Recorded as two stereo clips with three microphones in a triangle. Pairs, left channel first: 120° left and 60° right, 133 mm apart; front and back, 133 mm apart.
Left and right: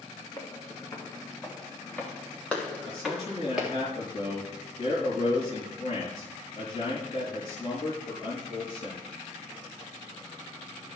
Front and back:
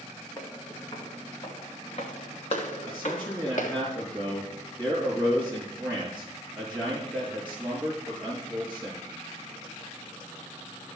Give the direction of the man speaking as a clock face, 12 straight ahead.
9 o'clock.